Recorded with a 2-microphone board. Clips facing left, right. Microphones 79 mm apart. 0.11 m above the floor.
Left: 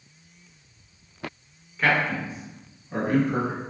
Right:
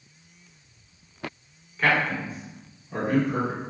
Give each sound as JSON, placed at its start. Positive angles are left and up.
{"t": 1.8, "sound": "a man speaking", "side_deg": 0, "distance_m": 1.2}